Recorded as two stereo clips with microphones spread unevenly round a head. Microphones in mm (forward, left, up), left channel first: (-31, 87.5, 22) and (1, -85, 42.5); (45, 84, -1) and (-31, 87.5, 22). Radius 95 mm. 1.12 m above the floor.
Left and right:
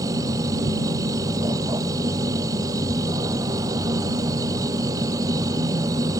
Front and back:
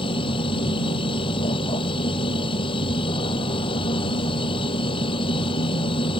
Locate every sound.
0.0 s a machine running: 5° right